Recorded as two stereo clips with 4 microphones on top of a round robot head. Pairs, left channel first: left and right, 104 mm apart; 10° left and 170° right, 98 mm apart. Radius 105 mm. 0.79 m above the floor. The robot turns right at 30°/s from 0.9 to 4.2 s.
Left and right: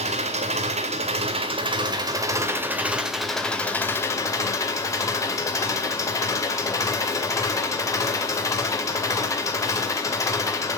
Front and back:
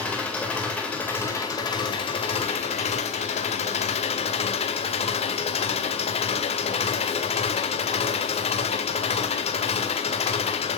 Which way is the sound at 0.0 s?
70° right.